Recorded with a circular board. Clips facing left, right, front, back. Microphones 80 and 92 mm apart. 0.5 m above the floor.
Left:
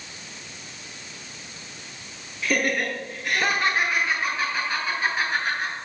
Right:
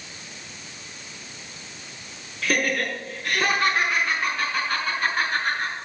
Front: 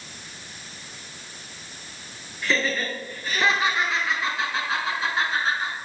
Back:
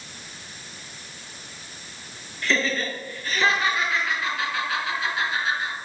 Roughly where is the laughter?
Right.